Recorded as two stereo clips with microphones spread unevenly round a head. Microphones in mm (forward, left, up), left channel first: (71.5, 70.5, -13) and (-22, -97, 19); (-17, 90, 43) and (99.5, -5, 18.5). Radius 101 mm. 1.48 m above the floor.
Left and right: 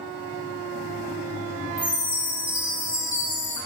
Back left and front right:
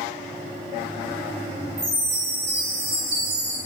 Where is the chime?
45° right, 0.8 m.